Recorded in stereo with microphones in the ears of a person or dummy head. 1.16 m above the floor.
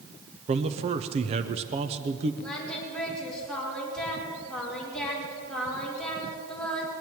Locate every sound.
0.5 s a man speaking: 35° right (ahead or behind), 0.6 m
2.4 s singing: 5° left (ahead or behind), 4.5 m